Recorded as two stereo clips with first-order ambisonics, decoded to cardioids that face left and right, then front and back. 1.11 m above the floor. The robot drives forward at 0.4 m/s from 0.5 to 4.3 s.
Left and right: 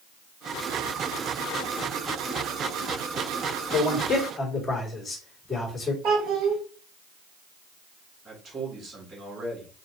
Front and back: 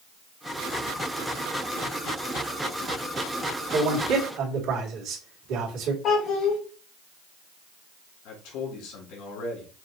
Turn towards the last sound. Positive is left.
turn(degrees=-30)